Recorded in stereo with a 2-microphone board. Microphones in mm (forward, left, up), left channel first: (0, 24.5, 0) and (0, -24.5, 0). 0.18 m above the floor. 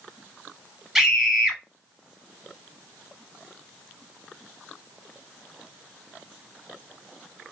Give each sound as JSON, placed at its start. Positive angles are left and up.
{"t": 0.9, "sound": "a scream", "side_deg": -10, "distance_m": 1.2}